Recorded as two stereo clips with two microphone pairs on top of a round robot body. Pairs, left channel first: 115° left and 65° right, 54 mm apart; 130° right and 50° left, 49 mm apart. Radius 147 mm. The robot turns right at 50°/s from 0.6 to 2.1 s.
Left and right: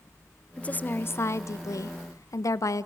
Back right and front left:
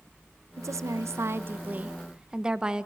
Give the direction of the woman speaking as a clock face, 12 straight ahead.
10 o'clock.